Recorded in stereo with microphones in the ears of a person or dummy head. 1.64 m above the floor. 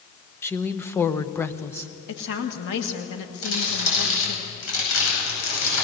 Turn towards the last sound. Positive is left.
turn(degrees=70)  # may be behind; listen again after turning